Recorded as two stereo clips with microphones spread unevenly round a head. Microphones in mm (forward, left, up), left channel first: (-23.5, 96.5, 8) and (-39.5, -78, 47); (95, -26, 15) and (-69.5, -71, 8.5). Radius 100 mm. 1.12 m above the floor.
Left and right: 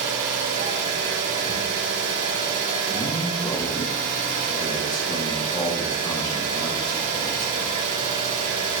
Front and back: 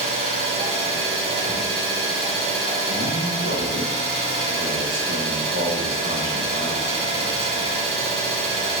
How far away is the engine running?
About 3 m.